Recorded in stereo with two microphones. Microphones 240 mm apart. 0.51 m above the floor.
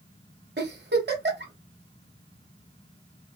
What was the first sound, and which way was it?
A giggle, 45° right (ahead or behind).